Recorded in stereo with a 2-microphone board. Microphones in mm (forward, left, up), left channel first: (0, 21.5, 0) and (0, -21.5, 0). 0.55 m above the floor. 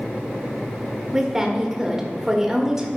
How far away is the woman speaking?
About 1.3 m.